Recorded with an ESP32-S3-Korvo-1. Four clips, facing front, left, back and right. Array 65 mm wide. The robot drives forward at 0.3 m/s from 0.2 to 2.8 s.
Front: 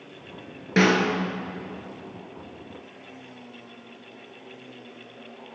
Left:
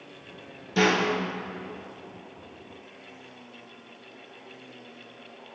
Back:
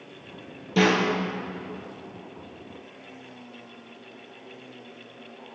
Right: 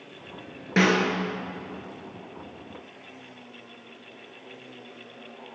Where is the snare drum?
40° right, 3 m.